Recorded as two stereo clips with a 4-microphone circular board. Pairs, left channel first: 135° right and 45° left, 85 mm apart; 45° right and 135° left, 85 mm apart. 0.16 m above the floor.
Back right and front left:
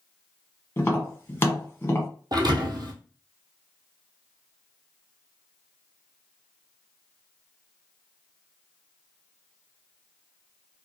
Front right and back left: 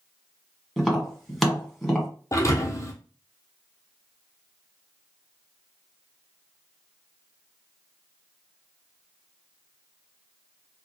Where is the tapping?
130° right, 1.5 m.